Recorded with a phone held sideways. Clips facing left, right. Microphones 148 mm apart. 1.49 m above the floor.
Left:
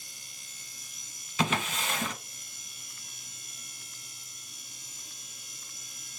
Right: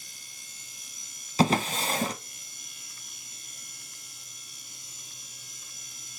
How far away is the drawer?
About 0.6 m.